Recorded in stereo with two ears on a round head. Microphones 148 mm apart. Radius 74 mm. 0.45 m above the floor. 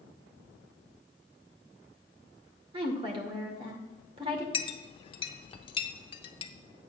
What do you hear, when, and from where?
2.7 s a woman speaking: 35° right (ahead or behind), 1.6 m
4.5 s a clink: 30° left (ahead or behind), 0.7 m